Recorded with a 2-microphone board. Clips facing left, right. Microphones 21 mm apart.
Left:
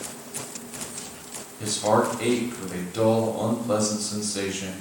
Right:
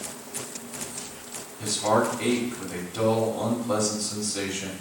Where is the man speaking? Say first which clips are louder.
Left 1 dB; 15° left (ahead or behind), 1.1 m.